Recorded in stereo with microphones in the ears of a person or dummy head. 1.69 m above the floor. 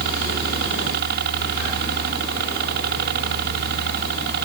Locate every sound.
0.0 s a helicopter: 60° right (ahead or behind)